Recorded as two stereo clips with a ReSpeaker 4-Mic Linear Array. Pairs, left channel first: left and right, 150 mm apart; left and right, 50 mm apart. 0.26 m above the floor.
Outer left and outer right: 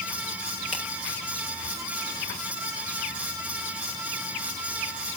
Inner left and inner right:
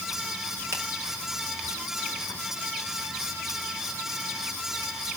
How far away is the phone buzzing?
I don't hear a phone buzzing.